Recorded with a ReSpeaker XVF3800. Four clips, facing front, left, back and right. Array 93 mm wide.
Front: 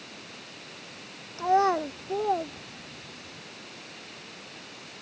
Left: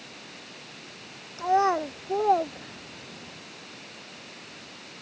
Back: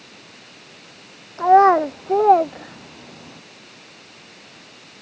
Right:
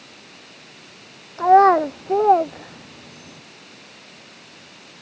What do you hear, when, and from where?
1.4 s a child speaking: 135° right; by 3.4 s 165° right